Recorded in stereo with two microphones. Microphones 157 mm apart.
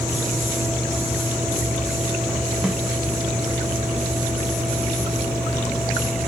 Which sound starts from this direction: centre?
A snare drum, at 2.6 s.